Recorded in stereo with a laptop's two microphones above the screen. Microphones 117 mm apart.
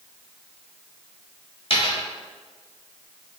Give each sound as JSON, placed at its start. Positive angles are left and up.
{"t": 1.7, "sound": "a dropped coin", "side_deg": 55, "distance_m": 1.2}